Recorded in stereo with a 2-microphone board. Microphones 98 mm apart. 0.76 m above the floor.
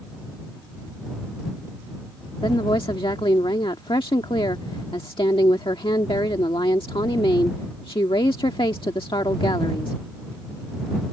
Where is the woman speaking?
65° left (ahead or behind).